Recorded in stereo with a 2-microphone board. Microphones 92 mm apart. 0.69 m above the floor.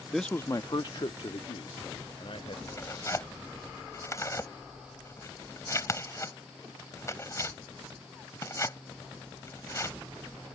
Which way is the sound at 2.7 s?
30° left (ahead or behind).